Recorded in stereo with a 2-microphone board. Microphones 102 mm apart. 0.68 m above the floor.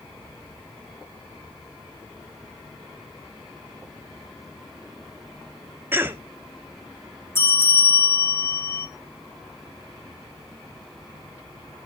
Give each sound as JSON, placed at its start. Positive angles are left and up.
{"t": 5.9, "sound": "a cough", "side_deg": -20, "distance_m": 0.9}
{"t": 7.3, "sound": "a bell", "side_deg": 20, "distance_m": 2.5}